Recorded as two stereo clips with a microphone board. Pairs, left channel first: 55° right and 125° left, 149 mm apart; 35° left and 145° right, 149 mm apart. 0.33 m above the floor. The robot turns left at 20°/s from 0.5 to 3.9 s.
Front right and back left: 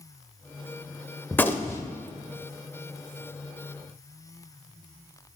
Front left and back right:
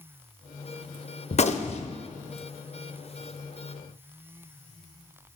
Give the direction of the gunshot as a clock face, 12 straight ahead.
11 o'clock.